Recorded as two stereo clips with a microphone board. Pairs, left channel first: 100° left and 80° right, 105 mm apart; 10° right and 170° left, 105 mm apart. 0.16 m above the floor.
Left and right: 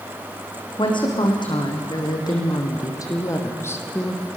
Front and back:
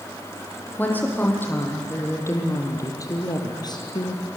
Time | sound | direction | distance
0.8 | a woman speaking | 60° left | 6.5 m